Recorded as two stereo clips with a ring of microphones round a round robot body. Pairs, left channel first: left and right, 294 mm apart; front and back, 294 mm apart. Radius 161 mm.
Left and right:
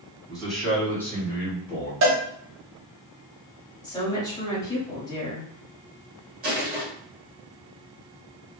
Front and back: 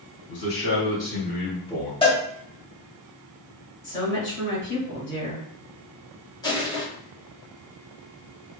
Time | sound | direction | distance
0.3 | a man speaking | straight ahead | 1.8 m
2.0 | a cowbell | 70° right | 1.0 m
3.8 | a woman speaking | 20° left | 1.5 m
6.4 | crushing | 65° right | 0.9 m